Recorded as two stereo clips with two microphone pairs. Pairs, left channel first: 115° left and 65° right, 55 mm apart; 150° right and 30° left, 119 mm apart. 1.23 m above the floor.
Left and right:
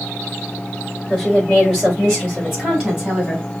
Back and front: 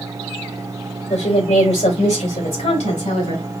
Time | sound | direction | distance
1.1 | a woman speaking | 160° right | 2.5 m